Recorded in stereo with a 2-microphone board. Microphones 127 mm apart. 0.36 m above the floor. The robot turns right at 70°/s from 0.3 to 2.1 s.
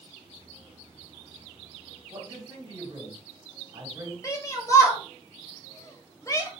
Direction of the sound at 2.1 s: 40° right (ahead or behind).